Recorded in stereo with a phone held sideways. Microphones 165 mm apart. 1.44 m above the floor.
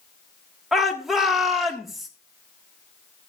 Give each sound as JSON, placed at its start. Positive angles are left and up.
{"t": 0.7, "sound": "a shout", "side_deg": 0, "distance_m": 1.4}